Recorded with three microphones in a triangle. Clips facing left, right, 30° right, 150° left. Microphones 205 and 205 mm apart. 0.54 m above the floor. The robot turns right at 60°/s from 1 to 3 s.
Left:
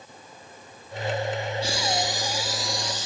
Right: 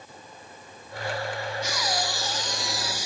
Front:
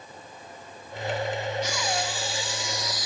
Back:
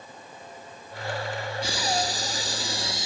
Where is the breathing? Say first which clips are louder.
Left 3 dB, back 1 dB; 115° left, 0.8 m; by 3.1 s 160° right, 0.8 m.